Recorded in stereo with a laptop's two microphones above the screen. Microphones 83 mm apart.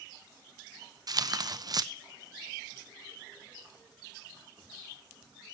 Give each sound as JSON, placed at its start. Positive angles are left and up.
{"t": 1.1, "sound": "tearing paper", "side_deg": -50, "distance_m": 0.7}